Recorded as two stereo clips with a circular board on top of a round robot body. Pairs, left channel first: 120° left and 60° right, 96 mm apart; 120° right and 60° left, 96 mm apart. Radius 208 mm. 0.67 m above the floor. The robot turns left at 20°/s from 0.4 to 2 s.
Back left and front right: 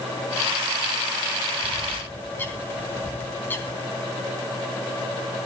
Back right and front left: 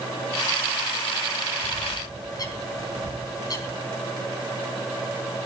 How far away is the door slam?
No door slam in this recording.